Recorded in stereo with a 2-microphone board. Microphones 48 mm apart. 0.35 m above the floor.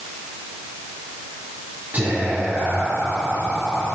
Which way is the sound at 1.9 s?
40° right (ahead or behind).